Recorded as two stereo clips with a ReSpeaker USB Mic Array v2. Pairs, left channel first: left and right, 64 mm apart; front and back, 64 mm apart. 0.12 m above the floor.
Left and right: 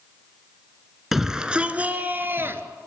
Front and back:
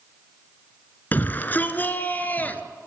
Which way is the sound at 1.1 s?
5° right.